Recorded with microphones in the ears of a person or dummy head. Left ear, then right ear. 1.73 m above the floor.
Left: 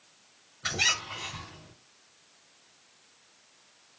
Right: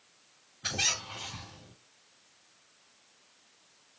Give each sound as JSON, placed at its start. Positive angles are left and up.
{"t": 0.6, "sound": "a squeak", "side_deg": -10, "distance_m": 1.6}